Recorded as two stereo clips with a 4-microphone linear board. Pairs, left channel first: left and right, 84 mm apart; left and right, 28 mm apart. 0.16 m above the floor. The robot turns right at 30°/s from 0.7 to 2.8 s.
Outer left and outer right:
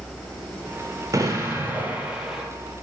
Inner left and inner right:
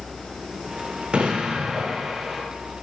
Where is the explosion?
40° right, 0.6 m; by 2.4 s 5° right, 0.6 m.